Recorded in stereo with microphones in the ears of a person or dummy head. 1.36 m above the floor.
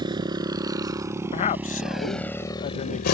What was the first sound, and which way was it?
A motorcycle, 30° right (ahead or behind).